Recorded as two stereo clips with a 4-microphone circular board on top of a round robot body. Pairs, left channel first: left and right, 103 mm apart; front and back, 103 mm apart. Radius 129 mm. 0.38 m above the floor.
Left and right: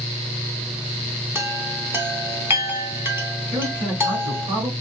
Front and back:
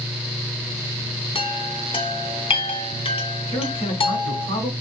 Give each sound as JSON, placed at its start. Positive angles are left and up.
{"t": 1.4, "sound": "a chime", "azimuth_deg": -25, "distance_m": 1.3}
{"t": 3.5, "sound": "a man speaking", "azimuth_deg": -40, "distance_m": 3.5}